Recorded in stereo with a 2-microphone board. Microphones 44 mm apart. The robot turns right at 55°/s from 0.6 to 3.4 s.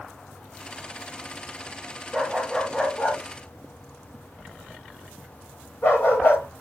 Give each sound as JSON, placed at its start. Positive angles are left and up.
{"t": 2.1, "sound": "a dog barking", "side_deg": -15, "distance_m": 6.5}